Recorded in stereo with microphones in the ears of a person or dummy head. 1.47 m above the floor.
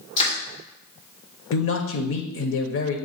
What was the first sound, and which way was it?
Crushing, 30° left (ahead or behind).